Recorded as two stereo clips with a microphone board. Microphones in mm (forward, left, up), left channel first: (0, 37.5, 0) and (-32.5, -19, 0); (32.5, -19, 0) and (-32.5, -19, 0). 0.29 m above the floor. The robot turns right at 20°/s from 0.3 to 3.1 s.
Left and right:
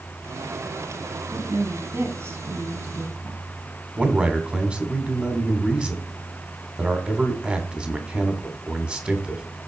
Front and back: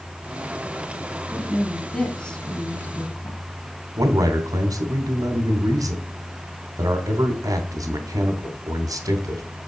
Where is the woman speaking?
95° right, 2 m; by 3.4 s 60° right, 2 m.